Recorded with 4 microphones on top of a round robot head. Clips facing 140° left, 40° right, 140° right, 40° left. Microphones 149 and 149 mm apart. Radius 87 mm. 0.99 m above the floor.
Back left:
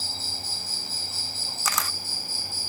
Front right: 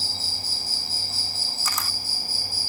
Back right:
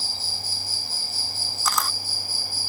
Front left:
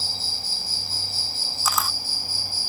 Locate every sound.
0.0 s an insect: 95° right
1.6 s a camera shutter: 125° left